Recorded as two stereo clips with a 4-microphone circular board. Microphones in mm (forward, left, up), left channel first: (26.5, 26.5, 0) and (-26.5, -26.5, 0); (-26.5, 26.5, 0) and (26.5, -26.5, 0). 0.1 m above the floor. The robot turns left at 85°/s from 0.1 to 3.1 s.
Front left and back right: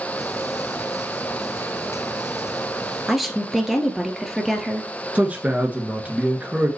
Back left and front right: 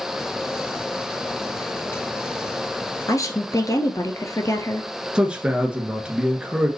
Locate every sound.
3.1 s a woman speaking: 140° left, 1.5 m
5.2 s a man speaking: 100° right, 1.5 m